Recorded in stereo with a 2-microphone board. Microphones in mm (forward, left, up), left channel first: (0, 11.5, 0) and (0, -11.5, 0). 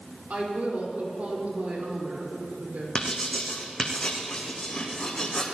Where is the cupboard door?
I don't hear a cupboard door.